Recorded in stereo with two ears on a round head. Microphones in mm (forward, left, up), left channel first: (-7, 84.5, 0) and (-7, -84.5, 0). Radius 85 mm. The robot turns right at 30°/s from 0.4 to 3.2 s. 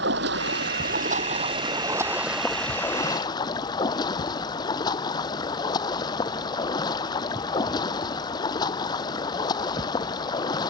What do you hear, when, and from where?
0.0 s running water: 60° right; by 10.7 s 20° left